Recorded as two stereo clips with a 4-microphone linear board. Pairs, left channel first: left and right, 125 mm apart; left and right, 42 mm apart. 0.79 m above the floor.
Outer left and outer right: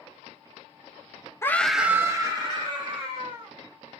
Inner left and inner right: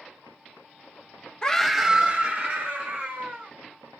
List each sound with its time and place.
1.4 s a scream: 20° left (ahead or behind), 0.6 m; by 3.5 s 45° right (ahead or behind), 1.8 m